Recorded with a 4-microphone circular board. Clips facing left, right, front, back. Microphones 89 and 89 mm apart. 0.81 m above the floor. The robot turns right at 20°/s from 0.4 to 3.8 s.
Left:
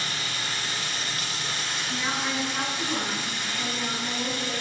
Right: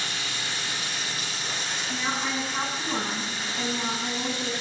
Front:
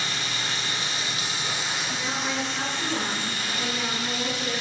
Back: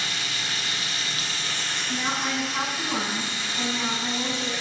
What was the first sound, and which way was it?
Running water, 50° left.